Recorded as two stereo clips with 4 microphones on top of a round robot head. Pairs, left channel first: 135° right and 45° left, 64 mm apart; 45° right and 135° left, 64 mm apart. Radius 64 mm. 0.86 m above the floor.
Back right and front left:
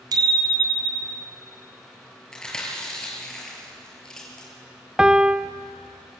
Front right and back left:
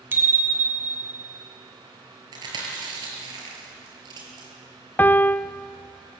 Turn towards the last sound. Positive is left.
turn(degrees=-20)